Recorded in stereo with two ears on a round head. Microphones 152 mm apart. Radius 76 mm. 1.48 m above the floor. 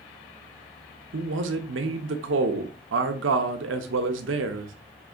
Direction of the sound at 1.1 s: 80° right.